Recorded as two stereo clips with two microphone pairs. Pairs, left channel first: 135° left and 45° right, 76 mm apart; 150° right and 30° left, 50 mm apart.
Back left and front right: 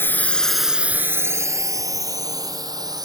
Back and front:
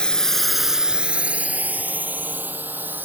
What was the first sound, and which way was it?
A drone, 155° left.